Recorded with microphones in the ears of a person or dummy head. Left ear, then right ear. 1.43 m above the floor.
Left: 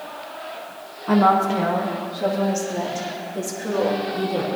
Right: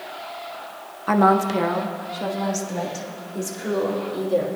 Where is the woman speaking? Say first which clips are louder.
Left 1 dB; 70° right (ahead or behind), 0.9 m; by 4.5 s 90° right, 4.5 m.